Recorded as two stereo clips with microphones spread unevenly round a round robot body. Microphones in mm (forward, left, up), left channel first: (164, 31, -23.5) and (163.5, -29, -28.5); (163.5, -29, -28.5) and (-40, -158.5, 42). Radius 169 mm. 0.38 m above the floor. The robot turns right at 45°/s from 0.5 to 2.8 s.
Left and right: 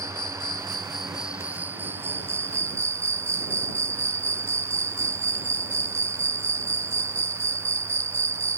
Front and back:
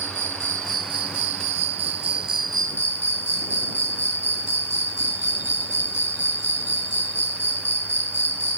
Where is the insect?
155° left; by 8.6 s 100° right.